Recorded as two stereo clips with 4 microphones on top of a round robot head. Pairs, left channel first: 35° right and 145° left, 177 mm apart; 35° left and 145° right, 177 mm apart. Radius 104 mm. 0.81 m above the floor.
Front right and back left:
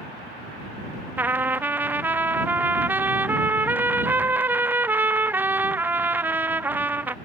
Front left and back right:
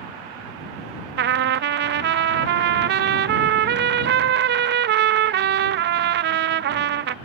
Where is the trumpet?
135° right.